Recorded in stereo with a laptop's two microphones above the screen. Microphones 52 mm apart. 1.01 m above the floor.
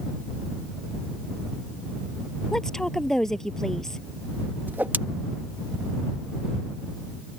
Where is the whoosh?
35° right (ahead or behind).